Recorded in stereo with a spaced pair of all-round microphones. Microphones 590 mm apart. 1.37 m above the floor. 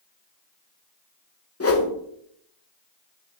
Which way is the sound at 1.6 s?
25° left (ahead or behind).